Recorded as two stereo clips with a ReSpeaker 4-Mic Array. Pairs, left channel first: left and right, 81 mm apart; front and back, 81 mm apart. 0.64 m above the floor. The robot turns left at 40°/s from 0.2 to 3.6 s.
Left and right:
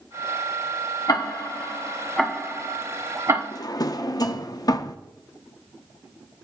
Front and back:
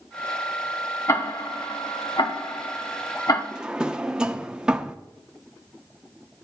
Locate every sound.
1.1 s ticking: 55° left, 1.1 m; by 3.4 s 40° right, 1.1 m
3.5 s a drawer: 105° left, 0.5 m